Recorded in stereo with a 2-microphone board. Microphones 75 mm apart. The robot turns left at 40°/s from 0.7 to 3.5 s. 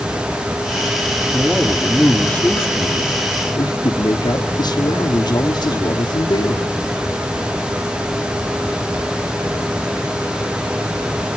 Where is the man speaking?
165° right, 3 m; by 6.7 s 110° left, 3 m.